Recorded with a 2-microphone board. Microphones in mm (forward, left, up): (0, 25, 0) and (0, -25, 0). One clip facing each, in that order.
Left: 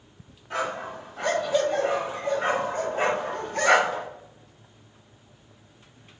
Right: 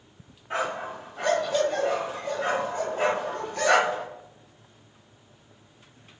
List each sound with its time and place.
0.5 s a dog barking: 25° right (ahead or behind), 1.1 m; by 4.1 s 70° left (ahead or behind), 1.8 m